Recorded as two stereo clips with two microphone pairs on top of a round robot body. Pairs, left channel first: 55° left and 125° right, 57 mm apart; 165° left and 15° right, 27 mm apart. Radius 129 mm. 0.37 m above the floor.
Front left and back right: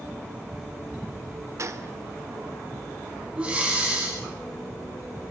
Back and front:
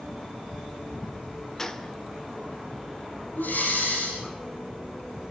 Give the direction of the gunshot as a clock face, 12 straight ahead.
4 o'clock.